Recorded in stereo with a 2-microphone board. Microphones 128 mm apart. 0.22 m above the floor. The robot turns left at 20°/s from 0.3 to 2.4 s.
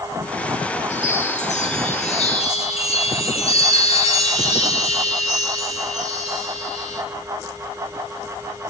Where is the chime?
85° left, 3 m; by 7.0 s 55° left, 3 m.